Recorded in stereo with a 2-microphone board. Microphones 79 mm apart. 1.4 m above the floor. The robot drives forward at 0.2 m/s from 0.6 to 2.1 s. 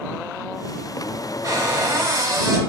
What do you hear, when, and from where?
1.4 s a cupboard door: 50° right (ahead or behind), 0.7 m; by 2.6 s 55° right (ahead or behind), 0.7 m